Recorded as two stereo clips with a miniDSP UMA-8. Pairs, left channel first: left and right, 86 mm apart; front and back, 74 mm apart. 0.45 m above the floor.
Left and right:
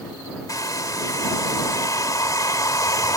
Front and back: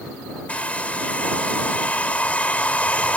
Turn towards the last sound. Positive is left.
turn(degrees=65)